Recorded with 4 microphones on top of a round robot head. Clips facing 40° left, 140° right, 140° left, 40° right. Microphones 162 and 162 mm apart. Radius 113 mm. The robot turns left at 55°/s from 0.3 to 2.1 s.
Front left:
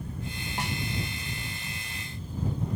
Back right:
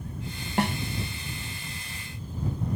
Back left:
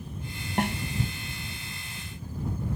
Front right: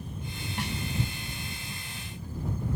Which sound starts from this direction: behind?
A snare drum, at 0.6 s.